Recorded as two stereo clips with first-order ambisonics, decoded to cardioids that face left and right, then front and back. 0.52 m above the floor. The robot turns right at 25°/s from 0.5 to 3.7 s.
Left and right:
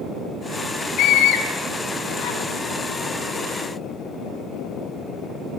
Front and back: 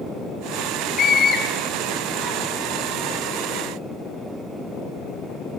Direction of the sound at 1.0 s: 55° left.